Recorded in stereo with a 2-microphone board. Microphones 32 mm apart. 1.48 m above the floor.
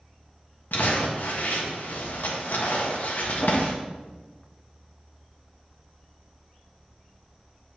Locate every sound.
0.7 s crumpling: 75° left (ahead or behind), 1.5 m